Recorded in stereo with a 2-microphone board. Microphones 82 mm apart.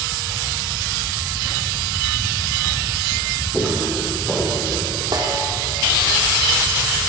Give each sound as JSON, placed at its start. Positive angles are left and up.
{"t": 3.5, "sound": "footsteps", "side_deg": 10, "distance_m": 5.0}
{"t": 5.1, "sound": "a snare drum", "side_deg": -50, "distance_m": 3.0}